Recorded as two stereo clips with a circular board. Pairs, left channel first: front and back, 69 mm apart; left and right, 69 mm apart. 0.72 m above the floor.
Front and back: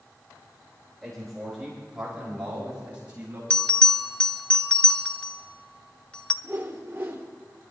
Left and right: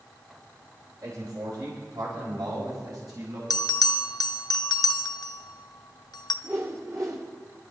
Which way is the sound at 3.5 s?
75° left.